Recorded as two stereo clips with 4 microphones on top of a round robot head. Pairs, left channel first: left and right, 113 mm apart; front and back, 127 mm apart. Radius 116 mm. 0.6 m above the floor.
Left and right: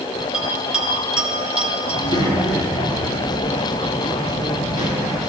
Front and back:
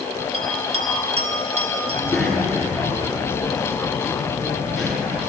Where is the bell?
170° right, 1.5 m.